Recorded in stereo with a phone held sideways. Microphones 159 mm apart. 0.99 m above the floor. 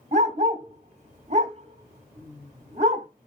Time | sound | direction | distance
0.1 | a dog barking | 45° right (ahead or behind) | 0.9 m